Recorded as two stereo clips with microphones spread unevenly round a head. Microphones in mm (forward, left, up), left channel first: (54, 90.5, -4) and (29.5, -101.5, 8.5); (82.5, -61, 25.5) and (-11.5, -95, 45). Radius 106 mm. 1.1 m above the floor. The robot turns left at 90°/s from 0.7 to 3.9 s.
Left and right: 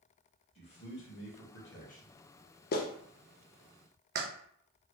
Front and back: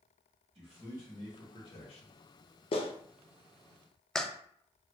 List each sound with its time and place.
0.6 s a man speaking: 145° left, 1.3 m; by 2.2 s 15° left, 1.3 m
2.7 s a clap: 45° left, 0.5 m; by 4.3 s 60° right, 0.5 m